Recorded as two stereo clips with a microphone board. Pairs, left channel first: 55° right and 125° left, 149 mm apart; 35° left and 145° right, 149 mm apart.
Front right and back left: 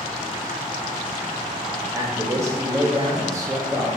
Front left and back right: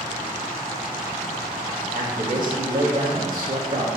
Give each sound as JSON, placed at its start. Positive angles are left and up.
{"t": 1.9, "sound": "a man speaking", "azimuth_deg": -170, "distance_m": 1.8}